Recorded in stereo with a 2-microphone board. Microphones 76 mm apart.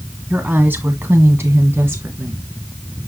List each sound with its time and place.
0.3 s a woman speaking: 15° right (ahead or behind), 1.4 m; by 2.5 s 30° right (ahead or behind), 2 m